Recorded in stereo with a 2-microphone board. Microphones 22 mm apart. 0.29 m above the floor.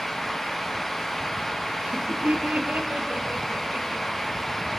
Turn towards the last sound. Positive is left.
turn(degrees=-80)